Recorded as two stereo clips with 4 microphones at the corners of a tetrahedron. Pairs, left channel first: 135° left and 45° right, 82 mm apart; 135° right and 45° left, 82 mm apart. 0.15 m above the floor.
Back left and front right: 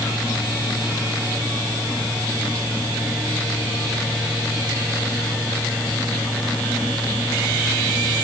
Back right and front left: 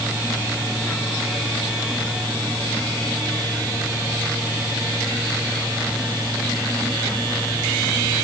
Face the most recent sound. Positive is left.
No sound to turn to.